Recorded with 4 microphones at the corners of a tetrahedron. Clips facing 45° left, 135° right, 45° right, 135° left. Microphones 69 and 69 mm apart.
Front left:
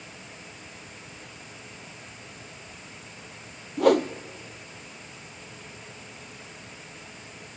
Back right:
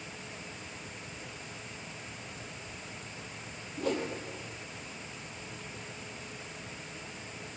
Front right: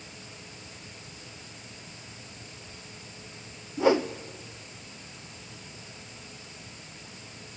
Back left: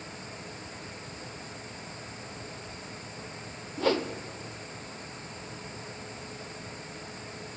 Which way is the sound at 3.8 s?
30° left.